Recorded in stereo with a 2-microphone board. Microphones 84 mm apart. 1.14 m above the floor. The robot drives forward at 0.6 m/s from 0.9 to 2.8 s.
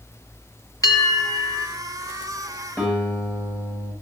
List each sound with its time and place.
0.8 s a bell: 40° left (ahead or behind), 2.5 m; by 1.7 s 50° left (ahead or behind), 2.5 m
2.8 s a guitar: 25° left (ahead or behind), 8.5 m